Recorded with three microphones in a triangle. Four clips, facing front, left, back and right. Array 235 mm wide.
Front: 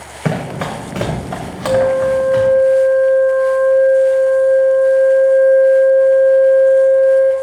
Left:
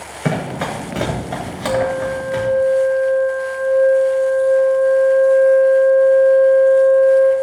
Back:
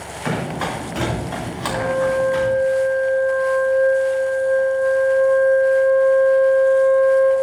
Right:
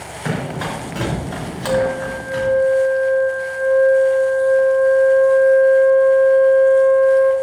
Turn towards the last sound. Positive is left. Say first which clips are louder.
# even, front 7 dB
turn(degrees=-5)